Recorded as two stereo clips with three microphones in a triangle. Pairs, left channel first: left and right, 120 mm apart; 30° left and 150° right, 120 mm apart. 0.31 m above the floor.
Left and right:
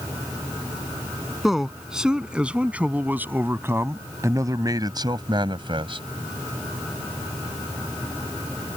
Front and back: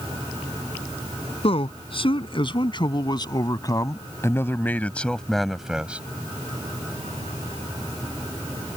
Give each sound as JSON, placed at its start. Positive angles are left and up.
{"t": 1.4, "sound": "a man speaking", "azimuth_deg": -5}